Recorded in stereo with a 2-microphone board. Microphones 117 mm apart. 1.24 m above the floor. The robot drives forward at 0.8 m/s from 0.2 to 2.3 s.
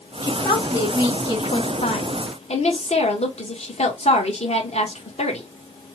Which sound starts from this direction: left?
A woman speaking, at 0.2 s.